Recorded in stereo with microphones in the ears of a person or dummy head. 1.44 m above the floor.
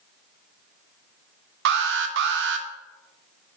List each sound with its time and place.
1.6 s an alarm: 55° right (ahead or behind), 1.5 m